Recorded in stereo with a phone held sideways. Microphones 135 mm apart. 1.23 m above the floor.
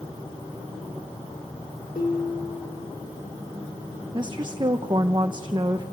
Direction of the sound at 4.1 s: 35° right (ahead or behind).